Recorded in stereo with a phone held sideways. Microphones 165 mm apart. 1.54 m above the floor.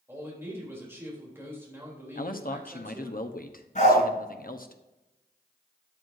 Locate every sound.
0.1 s a man speaking: 15° right (ahead or behind), 3.5 m
2.1 s a man speaking: 60° left (ahead or behind), 0.9 m
3.8 s a dog barking: 50° left (ahead or behind), 4.5 m